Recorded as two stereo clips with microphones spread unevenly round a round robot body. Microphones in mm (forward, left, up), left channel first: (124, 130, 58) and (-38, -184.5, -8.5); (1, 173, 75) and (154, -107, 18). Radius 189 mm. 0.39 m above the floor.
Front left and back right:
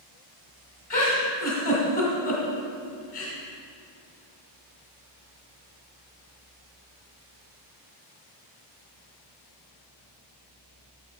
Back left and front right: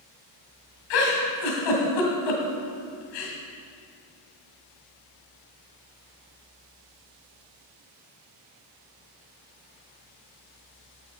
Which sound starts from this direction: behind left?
A giggle, at 0.9 s.